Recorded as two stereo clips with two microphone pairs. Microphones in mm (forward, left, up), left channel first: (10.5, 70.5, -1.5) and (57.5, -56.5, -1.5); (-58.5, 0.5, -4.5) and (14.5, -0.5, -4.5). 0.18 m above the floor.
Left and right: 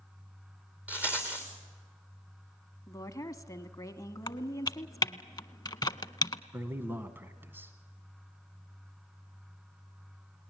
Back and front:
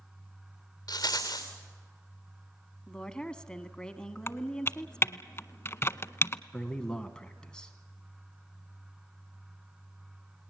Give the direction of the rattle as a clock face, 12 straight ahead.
5 o'clock.